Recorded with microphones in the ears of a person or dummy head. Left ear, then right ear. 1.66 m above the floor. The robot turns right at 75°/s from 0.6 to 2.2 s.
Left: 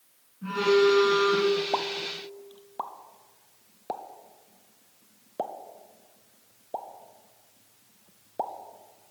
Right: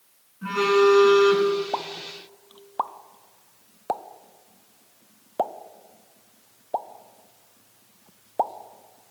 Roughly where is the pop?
Centre.